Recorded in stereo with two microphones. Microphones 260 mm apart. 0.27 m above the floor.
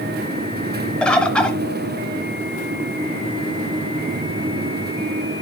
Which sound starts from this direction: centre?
A bird, at 1.0 s.